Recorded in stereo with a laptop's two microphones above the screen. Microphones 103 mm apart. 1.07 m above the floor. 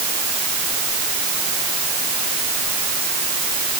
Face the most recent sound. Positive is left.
No sound to turn to.